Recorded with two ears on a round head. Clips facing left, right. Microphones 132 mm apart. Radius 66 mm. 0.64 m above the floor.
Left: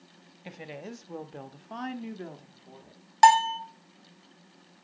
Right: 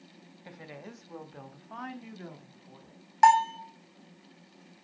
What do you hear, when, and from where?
0.5 s a woman speaking: 25° left (ahead or behind), 0.9 m; by 3.0 s 35° left (ahead or behind), 1.6 m
3.2 s a bell: 35° left (ahead or behind), 0.9 m